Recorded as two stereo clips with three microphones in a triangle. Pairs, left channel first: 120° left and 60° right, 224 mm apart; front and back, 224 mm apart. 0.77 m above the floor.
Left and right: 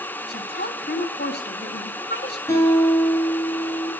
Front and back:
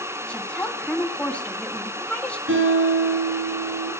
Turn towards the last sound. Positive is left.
turn(degrees=-165)